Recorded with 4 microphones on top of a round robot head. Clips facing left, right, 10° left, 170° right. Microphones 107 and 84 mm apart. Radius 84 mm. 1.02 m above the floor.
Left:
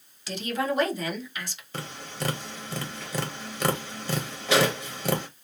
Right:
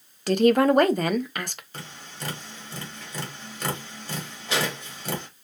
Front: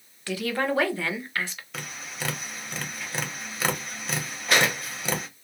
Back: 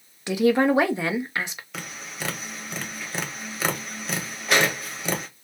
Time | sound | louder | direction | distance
0.3 | a woman speaking | right 11 dB, back 8 dB | 100° right | 0.8 m
1.7 | tapping | left 9 dB, back 1 dB | 105° left | 1.3 m